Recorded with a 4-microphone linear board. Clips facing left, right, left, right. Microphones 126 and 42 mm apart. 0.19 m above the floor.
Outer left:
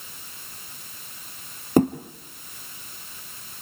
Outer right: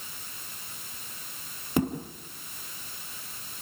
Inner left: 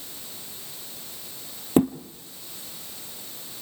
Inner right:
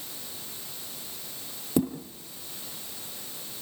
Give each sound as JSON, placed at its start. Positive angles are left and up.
{"t": 1.8, "sound": "a thud", "side_deg": 45, "distance_m": 1.7}